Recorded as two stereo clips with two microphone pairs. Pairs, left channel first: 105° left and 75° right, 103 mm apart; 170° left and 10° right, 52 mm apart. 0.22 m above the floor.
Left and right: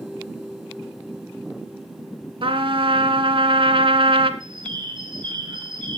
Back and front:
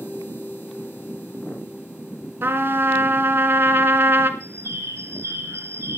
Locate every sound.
2.4 s a trumpet: 50° right, 1.3 m
4.4 s a bird: 35° right, 3 m